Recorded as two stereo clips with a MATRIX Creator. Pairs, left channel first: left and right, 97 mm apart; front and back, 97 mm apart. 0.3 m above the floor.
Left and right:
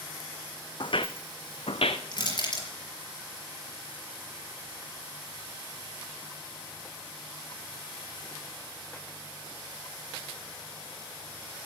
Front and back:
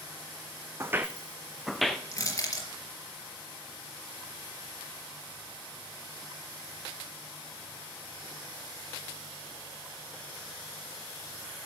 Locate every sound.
0.8 s footsteps: 115° left, 0.8 m; by 2.0 s 85° left, 1.3 m
2.1 s crushing: 55° left, 4.5 m